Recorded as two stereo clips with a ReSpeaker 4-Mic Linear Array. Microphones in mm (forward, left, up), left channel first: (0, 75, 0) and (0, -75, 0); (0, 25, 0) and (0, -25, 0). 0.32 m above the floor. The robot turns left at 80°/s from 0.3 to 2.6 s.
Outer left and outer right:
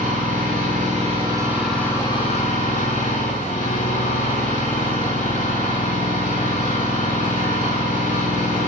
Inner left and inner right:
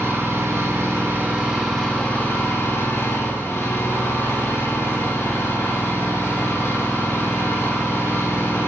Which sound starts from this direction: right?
An engine running, at 0.0 s.